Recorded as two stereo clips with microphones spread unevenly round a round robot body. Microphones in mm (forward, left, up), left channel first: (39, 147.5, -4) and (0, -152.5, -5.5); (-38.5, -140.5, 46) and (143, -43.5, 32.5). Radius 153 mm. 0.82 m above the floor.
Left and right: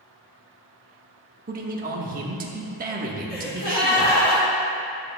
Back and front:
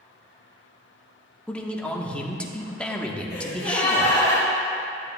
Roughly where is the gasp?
Behind left.